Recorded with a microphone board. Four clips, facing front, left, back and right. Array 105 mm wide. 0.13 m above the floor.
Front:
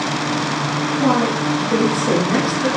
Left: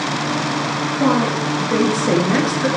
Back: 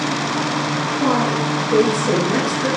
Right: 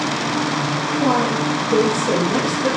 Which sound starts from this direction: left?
A woman speaking, at 1.0 s.